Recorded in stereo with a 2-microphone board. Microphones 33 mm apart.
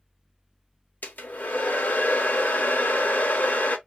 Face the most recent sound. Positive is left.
turn(degrees=65)  # may be behind; listen again after turning